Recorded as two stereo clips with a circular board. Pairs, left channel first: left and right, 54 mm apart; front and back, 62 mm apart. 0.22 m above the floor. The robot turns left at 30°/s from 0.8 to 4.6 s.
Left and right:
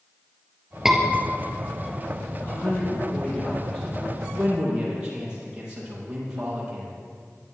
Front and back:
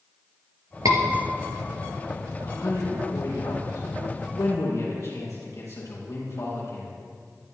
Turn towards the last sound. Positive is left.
turn(degrees=-15)